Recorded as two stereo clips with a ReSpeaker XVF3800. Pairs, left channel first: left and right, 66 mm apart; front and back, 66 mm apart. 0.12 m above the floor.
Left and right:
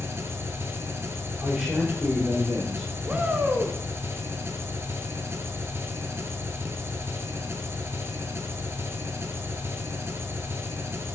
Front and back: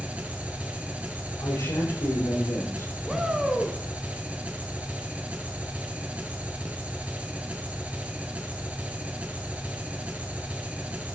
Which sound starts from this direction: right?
A shout, at 3.1 s.